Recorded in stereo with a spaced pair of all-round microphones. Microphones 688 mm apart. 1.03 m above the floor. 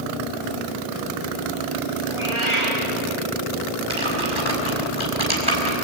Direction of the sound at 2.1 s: 45° right (ahead or behind).